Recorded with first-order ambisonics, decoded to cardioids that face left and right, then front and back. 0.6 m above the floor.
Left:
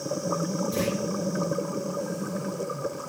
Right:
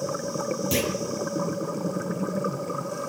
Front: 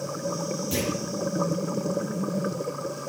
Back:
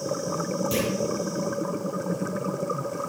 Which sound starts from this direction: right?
A clunk, at 0.7 s.